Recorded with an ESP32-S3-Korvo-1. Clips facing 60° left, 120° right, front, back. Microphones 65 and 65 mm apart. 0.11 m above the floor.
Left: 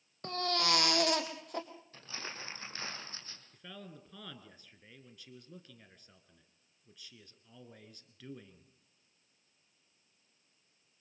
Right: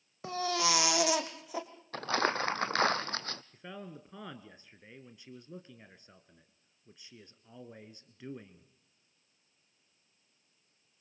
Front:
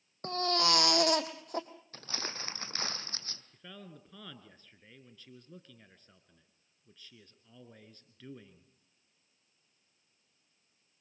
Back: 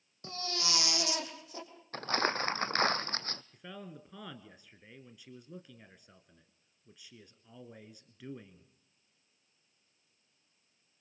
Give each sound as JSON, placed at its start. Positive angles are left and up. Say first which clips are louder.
{"t": 0.2, "sound": "a baby crying", "louder": "right 2 dB, front 9 dB", "azimuth_deg": -40, "distance_m": 2.0}
{"t": 1.9, "sound": "crumpling", "louder": "right 16 dB, back 11 dB", "azimuth_deg": -140, "distance_m": 0.9}
{"t": 3.5, "sound": "a man speaking", "louder": "right 4 dB, back 3 dB", "azimuth_deg": -125, "distance_m": 1.3}